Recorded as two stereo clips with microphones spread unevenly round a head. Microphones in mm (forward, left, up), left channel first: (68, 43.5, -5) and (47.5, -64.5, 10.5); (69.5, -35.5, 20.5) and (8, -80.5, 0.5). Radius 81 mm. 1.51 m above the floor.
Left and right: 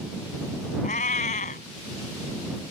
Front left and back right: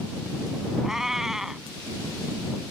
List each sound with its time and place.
0.8 s a cat meowing: 120° left